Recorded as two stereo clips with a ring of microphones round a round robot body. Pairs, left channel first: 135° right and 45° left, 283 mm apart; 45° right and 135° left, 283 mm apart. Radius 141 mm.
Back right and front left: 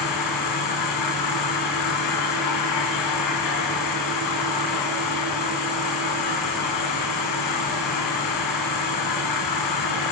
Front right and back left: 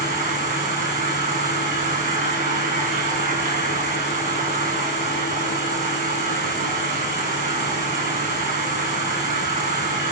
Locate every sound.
0.0 s an insect: 160° right, 7 m